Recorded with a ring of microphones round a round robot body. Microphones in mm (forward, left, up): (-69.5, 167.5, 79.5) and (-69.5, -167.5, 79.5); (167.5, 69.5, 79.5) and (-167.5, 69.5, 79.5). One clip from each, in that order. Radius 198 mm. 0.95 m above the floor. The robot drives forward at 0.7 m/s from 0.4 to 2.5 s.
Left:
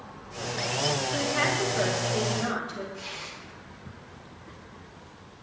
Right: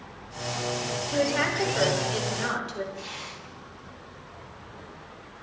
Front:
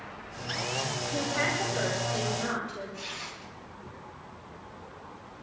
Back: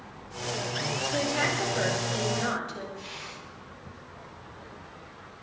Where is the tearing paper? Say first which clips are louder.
Even, front 2 dB; 15° right, 8.5 m.